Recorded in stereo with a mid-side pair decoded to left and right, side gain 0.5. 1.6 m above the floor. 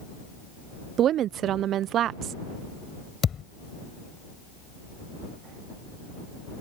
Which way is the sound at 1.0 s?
60° right.